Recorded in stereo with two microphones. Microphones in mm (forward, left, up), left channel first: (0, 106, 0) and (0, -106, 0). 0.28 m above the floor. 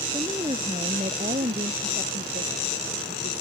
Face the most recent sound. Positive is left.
turn(degrees=-45)  # may be behind; listen again after turning